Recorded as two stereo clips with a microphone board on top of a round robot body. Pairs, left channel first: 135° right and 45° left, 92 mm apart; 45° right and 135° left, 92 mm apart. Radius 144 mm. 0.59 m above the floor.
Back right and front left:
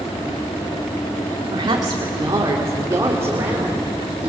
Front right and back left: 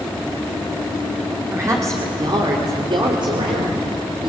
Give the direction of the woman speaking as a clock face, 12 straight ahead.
9 o'clock.